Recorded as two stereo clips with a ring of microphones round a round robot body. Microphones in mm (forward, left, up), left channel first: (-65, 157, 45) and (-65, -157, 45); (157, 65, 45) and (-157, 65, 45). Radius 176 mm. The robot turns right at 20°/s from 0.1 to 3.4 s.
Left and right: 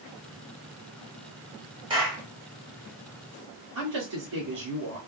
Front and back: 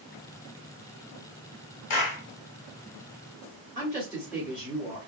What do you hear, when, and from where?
1.9 s a clap: 20° right, 1.0 m; by 2.2 s 10° right, 1.0 m
3.8 s a woman speaking: 95° right, 1.8 m